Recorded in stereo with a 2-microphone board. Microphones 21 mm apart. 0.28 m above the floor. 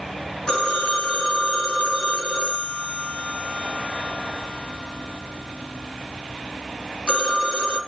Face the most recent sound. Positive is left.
turn(degrees=40)  # may be behind; listen again after turning